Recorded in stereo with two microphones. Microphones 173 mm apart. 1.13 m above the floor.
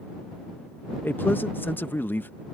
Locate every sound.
1.0 s a man speaking: 10° left (ahead or behind)